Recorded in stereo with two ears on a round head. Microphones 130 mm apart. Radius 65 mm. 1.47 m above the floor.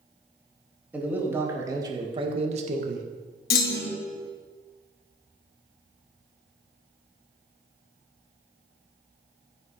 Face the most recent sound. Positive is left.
turn(degrees=75)  # may be behind; listen again after turning